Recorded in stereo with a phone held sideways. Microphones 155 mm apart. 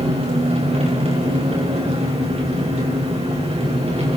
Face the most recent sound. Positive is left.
turn(degrees=-40)  # may be behind; listen again after turning